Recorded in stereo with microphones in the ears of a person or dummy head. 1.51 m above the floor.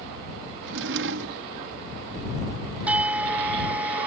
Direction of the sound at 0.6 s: 65° right (ahead or behind).